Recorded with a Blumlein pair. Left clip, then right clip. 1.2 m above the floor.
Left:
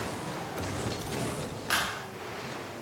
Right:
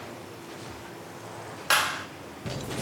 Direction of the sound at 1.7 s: 70° right.